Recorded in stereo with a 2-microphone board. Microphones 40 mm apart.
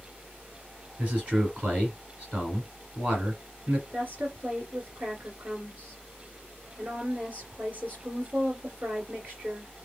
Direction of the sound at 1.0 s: 30° right (ahead or behind).